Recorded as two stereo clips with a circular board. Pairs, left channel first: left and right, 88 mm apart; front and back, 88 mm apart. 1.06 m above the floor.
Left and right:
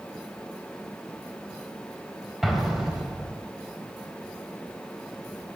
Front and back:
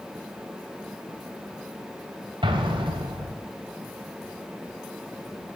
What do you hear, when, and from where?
2.4 s an explosion: 175° right, 2.5 m